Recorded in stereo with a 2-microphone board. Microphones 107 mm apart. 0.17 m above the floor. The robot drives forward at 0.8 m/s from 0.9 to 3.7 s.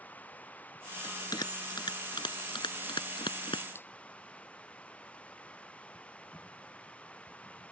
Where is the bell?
35° left (ahead or behind); by 3.6 s 50° left (ahead or behind).